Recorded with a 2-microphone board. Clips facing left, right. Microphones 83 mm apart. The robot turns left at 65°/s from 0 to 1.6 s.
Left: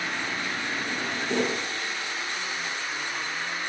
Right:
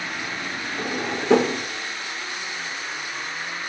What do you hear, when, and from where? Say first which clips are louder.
0.8 s a drawer: right 4 dB; 50° right (ahead or behind), 2 m; by 1.7 s 75° right (ahead or behind), 2 m